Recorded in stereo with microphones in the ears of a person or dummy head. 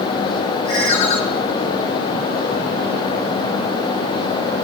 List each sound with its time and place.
0.7 s a ringtone: 50° left (ahead or behind), 4.5 m